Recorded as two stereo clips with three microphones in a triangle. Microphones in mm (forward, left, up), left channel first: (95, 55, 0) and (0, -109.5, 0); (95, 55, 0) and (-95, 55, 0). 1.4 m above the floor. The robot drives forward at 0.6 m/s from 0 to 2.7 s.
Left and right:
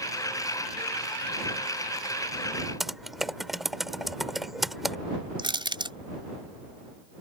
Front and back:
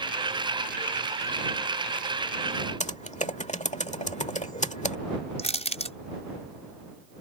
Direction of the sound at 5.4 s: 55° right.